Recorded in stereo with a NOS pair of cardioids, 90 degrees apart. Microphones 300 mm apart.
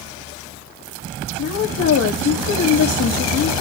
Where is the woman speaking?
65° left, 2.5 m.